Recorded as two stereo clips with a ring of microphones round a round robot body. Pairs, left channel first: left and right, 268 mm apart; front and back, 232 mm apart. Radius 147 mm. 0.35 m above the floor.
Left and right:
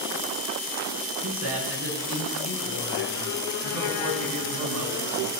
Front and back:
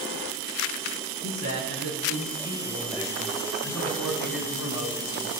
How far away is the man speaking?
About 6 m.